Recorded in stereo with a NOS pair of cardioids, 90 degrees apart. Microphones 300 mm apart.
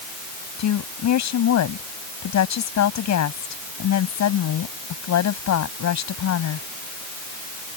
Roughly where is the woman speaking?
Ahead left.